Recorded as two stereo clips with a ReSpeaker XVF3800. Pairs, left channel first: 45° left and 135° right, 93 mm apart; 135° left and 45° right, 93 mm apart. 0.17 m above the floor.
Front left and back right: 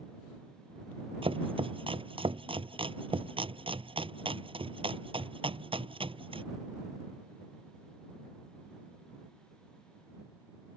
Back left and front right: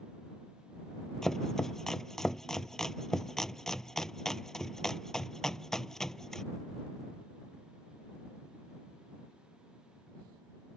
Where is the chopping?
140° right.